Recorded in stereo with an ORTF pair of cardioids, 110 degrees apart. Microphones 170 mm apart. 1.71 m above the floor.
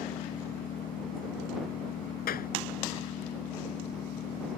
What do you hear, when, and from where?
0.0 s an engine running: 60° left
2.3 s a clap: 60° left